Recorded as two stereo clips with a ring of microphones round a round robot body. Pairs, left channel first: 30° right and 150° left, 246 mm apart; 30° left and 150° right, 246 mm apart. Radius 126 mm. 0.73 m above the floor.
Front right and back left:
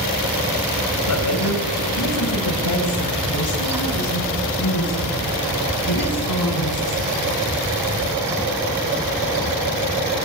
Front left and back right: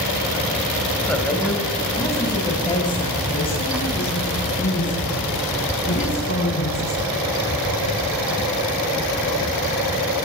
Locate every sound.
1.1 s a woman speaking: 55° right, 3.5 m; by 7.3 s 25° right, 6 m